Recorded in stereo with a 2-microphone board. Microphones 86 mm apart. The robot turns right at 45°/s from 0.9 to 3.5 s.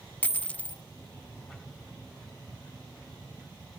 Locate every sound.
0.2 s a dropped coin: 15° left (ahead or behind), 0.7 m